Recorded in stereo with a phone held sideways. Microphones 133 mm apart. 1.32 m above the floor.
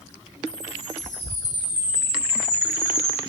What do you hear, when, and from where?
0.5 s a chime: 75° right (ahead or behind), 4 m